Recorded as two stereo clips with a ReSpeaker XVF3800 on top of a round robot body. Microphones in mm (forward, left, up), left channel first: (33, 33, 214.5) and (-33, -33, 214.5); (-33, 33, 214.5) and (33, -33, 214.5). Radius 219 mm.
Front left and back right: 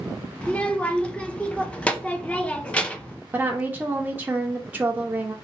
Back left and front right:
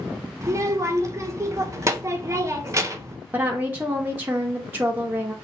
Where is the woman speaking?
85° right, 0.8 m.